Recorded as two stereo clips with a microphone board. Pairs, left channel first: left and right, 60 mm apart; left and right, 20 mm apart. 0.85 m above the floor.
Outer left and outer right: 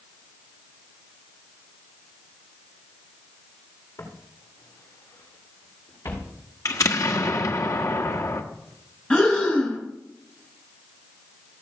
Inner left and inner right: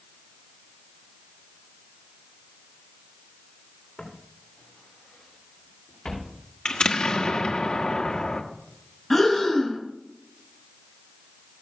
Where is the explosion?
60° left (ahead or behind), 1.4 m.